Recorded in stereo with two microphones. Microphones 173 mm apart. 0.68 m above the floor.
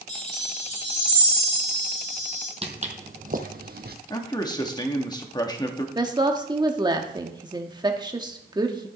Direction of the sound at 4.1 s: 25° left (ahead or behind).